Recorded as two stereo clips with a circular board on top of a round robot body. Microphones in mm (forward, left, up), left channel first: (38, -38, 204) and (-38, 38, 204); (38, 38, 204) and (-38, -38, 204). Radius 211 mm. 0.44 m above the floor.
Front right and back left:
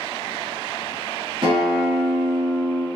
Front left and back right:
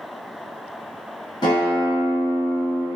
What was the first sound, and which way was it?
A guitar, 90° left.